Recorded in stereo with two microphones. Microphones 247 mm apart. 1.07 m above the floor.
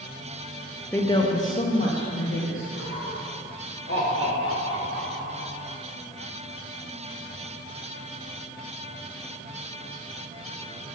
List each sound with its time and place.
0.9 s a woman speaking: 10° left (ahead or behind), 0.9 m; by 2.6 s 60° left (ahead or behind), 1.9 m
2.7 s laughter: 55° left (ahead or behind), 3.5 m